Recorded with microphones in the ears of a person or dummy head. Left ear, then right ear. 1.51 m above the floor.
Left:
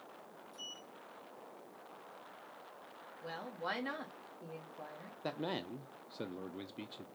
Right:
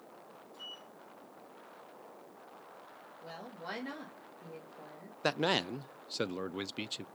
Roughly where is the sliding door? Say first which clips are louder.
Right 1 dB; left.